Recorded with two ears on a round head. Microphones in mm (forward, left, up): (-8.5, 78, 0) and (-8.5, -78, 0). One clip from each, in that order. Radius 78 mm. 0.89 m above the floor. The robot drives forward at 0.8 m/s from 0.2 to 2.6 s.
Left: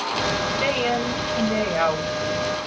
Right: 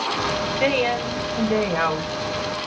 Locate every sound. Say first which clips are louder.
0.6 s a woman speaking: right 3 dB; 30° right (ahead or behind), 4 m; by 2.6 s 20° right (ahead or behind), 5 m